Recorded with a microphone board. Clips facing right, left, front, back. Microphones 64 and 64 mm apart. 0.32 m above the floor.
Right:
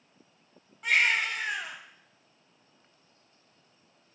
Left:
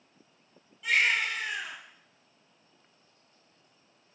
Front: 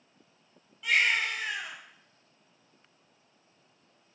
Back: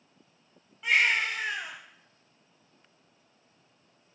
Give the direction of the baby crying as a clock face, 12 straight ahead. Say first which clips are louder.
Right 1 dB, back 1 dB; 4 o'clock.